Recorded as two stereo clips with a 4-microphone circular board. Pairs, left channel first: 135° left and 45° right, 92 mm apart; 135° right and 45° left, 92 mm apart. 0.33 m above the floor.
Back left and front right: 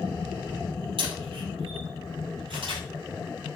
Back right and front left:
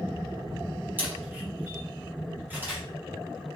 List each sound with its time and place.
1.0 s a camera shutter: 25° right, 6 m